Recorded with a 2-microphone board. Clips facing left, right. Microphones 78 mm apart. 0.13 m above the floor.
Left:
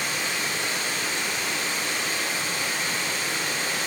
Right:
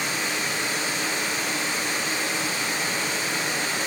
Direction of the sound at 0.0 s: 30° right (ahead or behind).